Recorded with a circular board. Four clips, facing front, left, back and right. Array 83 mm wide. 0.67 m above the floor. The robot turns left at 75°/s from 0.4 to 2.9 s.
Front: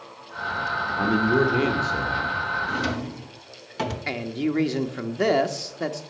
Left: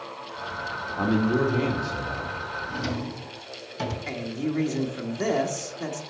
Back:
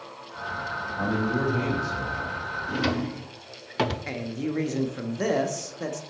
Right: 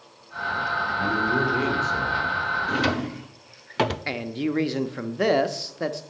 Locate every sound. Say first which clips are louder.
1.0 s a man speaking: left 3 dB, front 5 dB; 45° left, 1.8 m; by 2.4 s 60° right, 1.8 m
2.7 s a drawer: right 6 dB, even; 100° right, 0.7 m; by 4.0 s 115° right, 0.7 m
4.1 s a man speaking: right 2 dB, front 4 dB; 55° right, 0.9 m